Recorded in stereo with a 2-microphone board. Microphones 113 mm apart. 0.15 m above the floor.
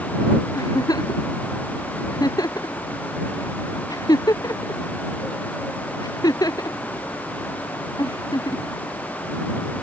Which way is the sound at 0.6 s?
35° left (ahead or behind).